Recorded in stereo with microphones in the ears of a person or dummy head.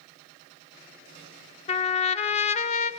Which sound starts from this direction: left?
A trumpet, at 1.7 s.